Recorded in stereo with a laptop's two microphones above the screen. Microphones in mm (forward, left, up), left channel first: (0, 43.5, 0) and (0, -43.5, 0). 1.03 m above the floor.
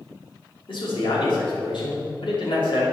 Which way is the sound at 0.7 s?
70° left (ahead or behind).